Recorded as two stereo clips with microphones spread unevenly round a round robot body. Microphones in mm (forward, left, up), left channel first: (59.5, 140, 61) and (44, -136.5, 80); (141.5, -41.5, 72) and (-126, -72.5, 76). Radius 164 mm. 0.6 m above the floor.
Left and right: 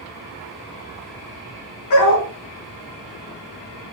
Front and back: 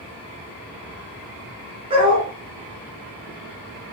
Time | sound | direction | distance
1.9 | a dog barking | 115° left | 2.5 m